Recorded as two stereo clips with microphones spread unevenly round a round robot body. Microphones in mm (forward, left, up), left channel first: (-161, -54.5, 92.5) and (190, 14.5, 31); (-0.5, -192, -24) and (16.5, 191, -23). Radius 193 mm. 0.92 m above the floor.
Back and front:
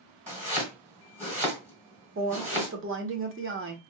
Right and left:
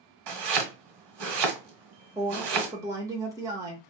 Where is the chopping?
100° left, 1.1 m.